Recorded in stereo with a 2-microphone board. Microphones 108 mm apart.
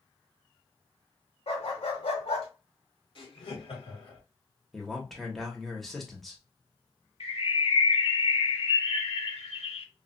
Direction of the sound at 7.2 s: 70° left (ahead or behind).